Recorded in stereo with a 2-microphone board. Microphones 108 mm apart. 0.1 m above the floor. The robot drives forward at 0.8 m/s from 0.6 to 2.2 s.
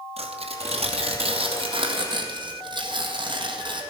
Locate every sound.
0.2 s tearing paper: 70° right (ahead or behind), 1.6 m; by 3.8 s 45° right (ahead or behind), 2 m